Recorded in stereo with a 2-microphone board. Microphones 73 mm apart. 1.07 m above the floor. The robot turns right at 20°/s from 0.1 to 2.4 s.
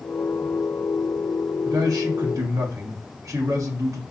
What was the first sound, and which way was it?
A man speaking, 60° right (ahead or behind).